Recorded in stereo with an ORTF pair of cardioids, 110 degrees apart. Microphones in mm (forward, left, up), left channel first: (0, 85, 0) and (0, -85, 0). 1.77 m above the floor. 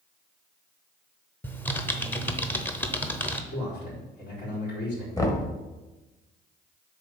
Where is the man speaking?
65° left, 4 m.